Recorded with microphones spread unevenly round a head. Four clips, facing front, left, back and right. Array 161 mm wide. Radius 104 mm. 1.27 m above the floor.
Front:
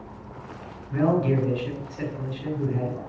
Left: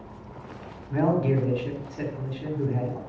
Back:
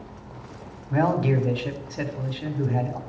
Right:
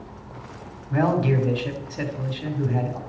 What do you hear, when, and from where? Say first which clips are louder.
0.9 s a man speaking: right 2 dB, even; 170° left, 4.5 m